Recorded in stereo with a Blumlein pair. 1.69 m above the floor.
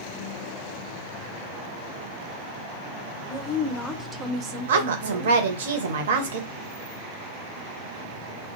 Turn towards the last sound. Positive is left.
turn(degrees=-60)